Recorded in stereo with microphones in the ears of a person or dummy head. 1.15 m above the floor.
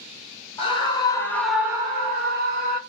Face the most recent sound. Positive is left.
turn(degrees=-45)  # may be behind; listen again after turning